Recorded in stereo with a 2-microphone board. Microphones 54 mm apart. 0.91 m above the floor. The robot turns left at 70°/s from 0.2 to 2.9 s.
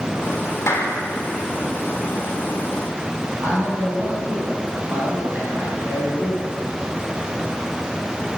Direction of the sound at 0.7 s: 55° left (ahead or behind).